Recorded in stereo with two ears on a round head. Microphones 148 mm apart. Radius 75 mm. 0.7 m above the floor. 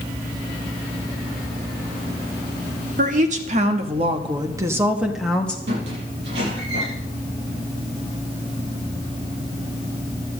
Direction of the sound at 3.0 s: 50° right (ahead or behind).